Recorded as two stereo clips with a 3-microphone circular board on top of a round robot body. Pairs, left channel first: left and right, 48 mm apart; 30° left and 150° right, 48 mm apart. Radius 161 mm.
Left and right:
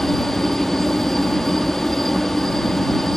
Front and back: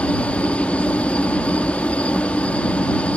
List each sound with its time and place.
0.0 s a helicopter: 15° left